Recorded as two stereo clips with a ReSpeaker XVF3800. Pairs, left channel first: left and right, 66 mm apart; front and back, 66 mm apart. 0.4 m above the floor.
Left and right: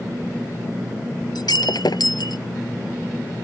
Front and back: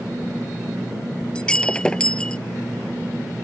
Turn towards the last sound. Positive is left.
turn(degrees=75)